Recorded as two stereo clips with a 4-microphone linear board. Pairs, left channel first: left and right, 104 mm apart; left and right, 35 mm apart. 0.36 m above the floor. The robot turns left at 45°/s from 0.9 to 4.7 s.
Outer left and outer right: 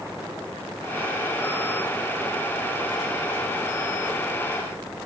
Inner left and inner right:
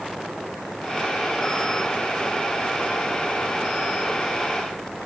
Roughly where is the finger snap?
No finger snap in this recording.